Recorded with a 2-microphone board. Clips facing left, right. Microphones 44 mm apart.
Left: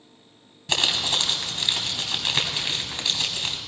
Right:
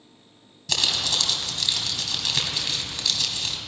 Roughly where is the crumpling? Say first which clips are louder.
Left 2 dB; left.